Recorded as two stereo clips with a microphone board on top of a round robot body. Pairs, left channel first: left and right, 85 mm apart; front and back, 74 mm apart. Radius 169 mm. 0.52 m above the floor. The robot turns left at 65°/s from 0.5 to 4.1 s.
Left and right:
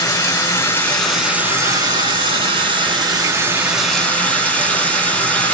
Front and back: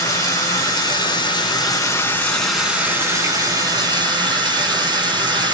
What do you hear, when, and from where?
0.0 s running water: 40° left, 7.5 m; by 5.6 s 165° left, 7.5 m